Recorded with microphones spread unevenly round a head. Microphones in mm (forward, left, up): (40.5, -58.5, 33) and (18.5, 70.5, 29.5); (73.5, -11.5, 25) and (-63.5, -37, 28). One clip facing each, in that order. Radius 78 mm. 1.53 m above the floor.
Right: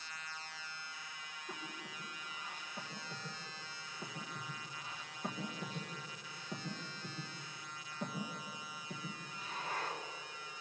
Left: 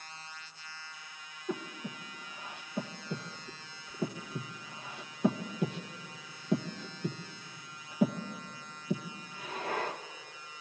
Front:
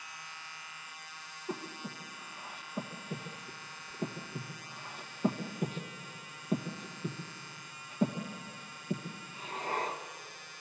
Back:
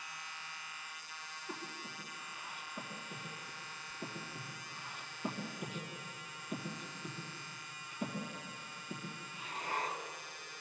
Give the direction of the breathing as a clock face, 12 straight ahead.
10 o'clock.